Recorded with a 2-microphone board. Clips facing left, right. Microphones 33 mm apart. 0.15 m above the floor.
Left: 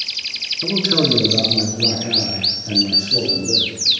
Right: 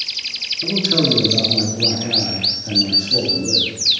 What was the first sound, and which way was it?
A man speaking, 30° left (ahead or behind).